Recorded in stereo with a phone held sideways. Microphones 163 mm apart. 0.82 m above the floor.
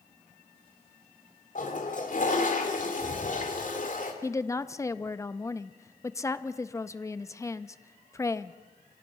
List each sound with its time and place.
1.6 s a toilet flushing: 55° left (ahead or behind), 2.5 m
4.2 s a woman speaking: 20° left (ahead or behind), 0.7 m